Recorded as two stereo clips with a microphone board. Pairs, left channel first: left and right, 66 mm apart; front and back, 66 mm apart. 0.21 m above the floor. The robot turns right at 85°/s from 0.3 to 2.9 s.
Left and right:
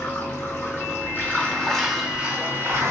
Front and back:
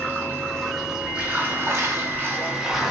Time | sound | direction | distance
0.0 | running water | 45° left | 1.2 m